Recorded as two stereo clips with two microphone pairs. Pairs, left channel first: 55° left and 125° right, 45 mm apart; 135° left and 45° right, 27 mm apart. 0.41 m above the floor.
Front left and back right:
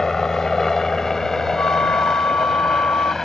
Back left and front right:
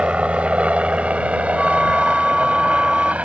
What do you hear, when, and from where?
0.0 s a helicopter: 25° right
1.6 s a flute: 45° left